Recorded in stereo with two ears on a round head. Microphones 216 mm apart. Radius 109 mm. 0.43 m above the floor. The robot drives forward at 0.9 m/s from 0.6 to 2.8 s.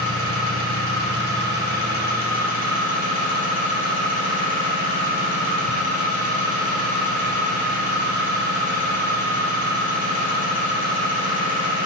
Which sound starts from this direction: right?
An engine running, at 0.0 s.